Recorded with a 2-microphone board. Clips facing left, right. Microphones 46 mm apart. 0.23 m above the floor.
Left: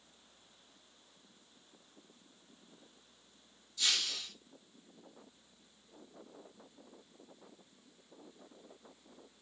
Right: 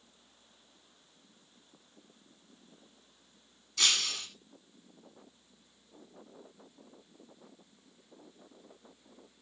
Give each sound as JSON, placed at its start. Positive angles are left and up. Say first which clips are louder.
{"t": 3.8, "sound": "breaking glass", "louder": "right 5 dB", "side_deg": -80, "distance_m": 4.0}